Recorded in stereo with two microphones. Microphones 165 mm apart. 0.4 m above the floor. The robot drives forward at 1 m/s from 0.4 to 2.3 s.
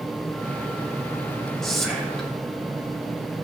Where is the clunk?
I don't hear a clunk.